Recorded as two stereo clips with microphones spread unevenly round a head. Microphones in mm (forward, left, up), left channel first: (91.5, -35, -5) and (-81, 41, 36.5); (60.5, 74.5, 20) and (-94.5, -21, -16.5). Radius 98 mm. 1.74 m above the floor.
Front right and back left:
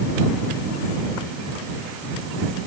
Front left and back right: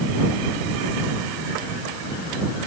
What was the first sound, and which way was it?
Only background noise.